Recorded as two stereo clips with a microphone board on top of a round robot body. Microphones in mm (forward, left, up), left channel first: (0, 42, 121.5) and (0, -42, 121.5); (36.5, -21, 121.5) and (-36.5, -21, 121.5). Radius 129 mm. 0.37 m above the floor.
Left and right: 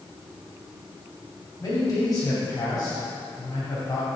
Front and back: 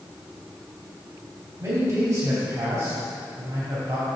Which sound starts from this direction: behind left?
A man speaking, at 1.6 s.